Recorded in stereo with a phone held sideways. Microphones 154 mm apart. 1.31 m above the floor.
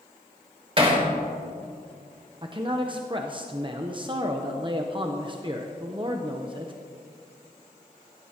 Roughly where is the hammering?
Right.